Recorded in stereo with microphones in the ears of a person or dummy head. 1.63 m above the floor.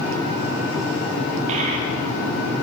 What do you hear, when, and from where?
1.5 s a child speaking: 45° right (ahead or behind), 1.1 m